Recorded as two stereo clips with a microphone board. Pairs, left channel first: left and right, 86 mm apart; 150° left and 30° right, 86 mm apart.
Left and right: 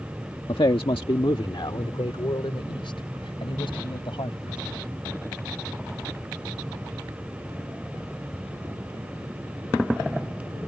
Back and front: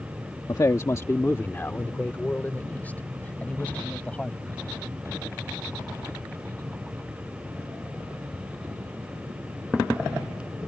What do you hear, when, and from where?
0.5 s a man speaking: 105° left; by 4.7 s 75° left